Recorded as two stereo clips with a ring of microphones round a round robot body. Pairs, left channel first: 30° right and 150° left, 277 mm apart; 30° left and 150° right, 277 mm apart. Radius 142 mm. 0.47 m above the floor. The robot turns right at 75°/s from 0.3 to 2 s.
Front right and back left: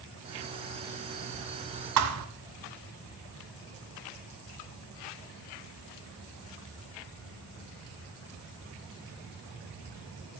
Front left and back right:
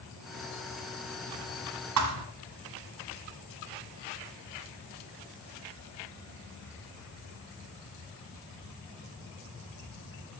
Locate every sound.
2.0 s a thud: straight behind, 1.4 m